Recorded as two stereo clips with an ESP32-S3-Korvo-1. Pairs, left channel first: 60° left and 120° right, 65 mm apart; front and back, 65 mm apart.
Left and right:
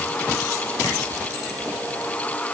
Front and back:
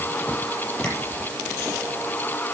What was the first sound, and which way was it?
Tapping, 75° left.